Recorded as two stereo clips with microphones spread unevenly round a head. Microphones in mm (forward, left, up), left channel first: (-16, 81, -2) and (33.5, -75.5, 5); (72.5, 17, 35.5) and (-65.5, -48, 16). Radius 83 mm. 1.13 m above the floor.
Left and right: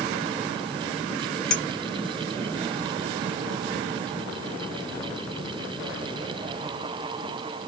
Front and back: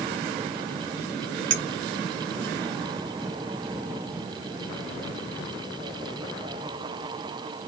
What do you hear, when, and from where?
1.5 s a clink: 165° right, 2 m